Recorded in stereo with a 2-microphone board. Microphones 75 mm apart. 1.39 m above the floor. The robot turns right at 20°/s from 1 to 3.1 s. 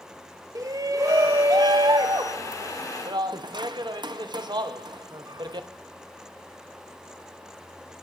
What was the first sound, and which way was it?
A shout, 50° right (ahead or behind).